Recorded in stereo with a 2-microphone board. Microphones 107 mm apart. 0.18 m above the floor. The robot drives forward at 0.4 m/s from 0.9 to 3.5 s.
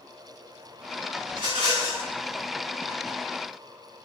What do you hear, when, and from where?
1.3 s a rattle: 50° right (ahead or behind), 1.7 m; by 2.1 s 55° right (ahead or behind), 1.6 m